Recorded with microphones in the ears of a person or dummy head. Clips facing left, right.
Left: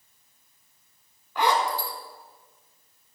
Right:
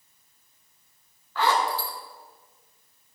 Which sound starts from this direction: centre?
A zipper, at 1.4 s.